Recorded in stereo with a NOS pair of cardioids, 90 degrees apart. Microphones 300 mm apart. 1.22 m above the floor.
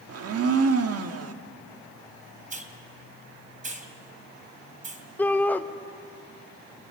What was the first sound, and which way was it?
A blender, 55° right.